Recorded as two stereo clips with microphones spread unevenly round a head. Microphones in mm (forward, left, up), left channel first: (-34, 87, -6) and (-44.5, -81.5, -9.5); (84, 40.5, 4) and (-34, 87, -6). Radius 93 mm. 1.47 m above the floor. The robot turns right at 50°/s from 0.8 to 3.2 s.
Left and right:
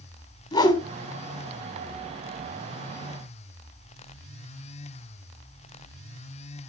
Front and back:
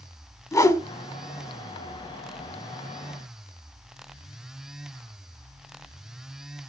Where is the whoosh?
30° left, 1.4 m.